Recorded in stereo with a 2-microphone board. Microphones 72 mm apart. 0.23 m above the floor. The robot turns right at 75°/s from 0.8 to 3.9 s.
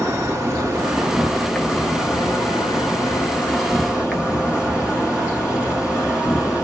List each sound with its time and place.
0.0 s an insect: 35° right, 0.7 m; by 6.6 s 165° right, 0.7 m